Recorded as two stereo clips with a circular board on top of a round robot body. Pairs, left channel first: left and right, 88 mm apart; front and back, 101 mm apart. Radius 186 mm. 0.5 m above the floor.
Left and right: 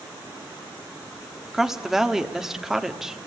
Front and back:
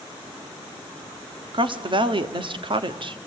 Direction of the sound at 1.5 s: 175° right.